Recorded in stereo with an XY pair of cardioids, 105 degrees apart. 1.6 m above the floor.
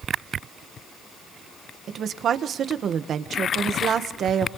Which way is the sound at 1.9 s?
60° right.